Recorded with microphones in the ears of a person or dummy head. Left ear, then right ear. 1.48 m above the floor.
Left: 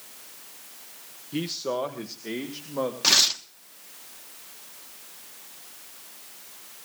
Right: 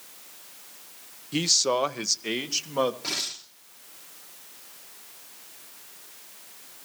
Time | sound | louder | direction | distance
1.3 | a man speaking | right 6 dB | 45° right (ahead or behind) | 0.7 m
3.0 | tearing paper | left 11 dB | 50° left (ahead or behind) | 1.1 m